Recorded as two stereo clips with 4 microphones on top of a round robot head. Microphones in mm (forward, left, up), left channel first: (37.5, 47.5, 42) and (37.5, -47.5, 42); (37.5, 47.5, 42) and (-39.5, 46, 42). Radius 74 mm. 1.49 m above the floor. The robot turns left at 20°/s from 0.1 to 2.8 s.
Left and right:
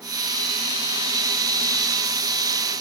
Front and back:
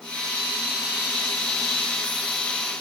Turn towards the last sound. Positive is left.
No sound to turn to.